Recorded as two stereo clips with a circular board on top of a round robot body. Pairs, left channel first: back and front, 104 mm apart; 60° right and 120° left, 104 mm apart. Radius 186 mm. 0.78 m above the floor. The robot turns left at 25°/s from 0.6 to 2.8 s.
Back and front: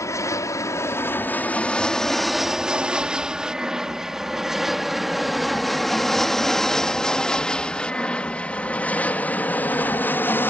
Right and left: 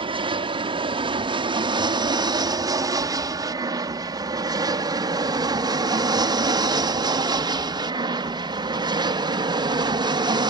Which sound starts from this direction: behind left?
An aircraft, at 0.0 s.